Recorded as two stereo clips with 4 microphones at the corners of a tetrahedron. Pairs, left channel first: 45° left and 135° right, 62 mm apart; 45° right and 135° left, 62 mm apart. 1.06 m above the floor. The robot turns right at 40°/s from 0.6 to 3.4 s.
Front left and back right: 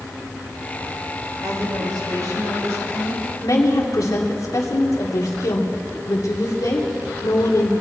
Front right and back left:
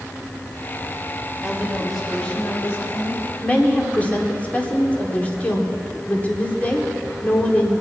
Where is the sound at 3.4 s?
20° left, 2.5 m.